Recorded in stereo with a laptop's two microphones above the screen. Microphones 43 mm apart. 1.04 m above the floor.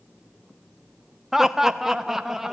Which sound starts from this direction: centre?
Laughter, at 1.3 s.